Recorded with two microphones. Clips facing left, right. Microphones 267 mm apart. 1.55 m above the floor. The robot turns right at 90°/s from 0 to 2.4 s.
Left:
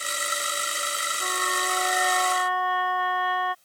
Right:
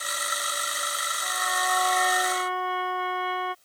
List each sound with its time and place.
1.2 s a trumpet: 100° left; by 3.5 s 150° right